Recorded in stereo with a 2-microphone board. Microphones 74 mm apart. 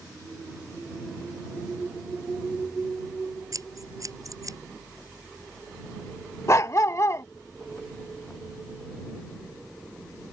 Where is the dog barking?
45° left (ahead or behind).